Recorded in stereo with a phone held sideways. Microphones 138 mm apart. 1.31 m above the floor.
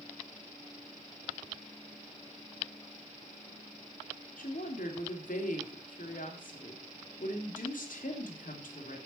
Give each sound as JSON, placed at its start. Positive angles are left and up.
{"t": 4.4, "sound": "a woman speaking", "side_deg": 75, "distance_m": 3.0}